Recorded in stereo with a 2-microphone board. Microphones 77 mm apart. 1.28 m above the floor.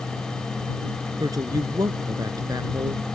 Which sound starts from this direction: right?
A woman speaking, at 1.2 s.